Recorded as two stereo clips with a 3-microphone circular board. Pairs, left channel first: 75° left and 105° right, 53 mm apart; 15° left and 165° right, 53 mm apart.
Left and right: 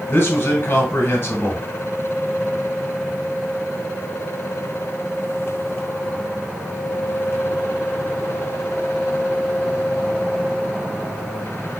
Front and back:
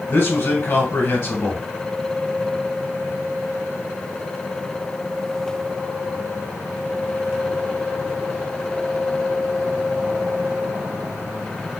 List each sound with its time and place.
0.1 s a man speaking: 35° left, 2.5 m